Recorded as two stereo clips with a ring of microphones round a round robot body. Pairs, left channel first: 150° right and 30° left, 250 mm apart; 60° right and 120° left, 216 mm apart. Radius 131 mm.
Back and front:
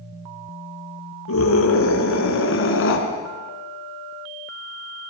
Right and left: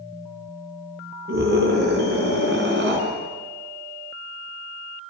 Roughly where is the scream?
Behind.